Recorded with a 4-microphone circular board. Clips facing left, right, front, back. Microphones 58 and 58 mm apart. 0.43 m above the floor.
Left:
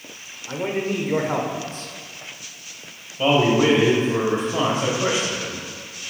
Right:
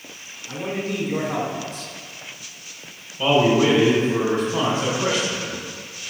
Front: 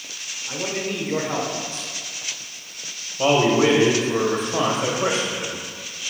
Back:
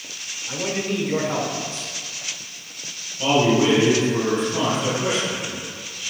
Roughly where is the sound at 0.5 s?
Left.